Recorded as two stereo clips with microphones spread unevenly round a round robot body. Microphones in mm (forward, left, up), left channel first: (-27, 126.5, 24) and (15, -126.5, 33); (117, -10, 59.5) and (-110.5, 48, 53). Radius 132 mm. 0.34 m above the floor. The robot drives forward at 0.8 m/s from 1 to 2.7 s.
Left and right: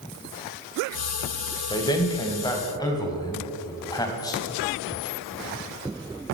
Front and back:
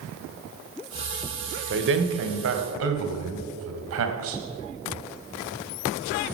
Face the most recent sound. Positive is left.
turn(degrees=175)